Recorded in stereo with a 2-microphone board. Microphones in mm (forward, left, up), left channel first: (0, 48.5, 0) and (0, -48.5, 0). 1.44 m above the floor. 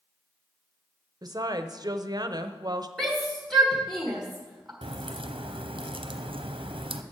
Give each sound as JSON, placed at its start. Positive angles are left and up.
{"t": 1.2, "sound": "a woman speaking", "side_deg": -45, "distance_m": 0.7}
{"t": 3.0, "sound": "a shout", "side_deg": 0, "distance_m": 1.6}
{"t": 4.8, "sound": "a crack", "side_deg": -65, "distance_m": 0.7}